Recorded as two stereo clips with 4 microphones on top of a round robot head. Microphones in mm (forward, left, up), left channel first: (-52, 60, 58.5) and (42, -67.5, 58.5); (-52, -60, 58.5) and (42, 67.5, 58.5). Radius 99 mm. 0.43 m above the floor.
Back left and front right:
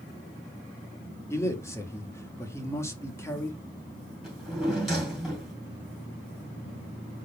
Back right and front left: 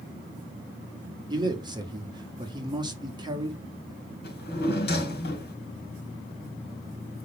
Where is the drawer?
140° right, 2.5 m.